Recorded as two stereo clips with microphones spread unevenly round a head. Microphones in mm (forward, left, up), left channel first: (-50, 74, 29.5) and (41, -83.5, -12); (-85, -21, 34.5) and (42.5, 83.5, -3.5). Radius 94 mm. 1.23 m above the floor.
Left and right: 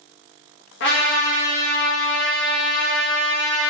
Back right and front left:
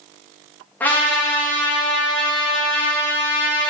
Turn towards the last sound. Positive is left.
turn(degrees=140)